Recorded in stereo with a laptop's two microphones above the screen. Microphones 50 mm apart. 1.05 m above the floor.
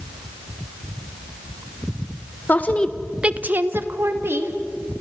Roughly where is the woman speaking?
Left.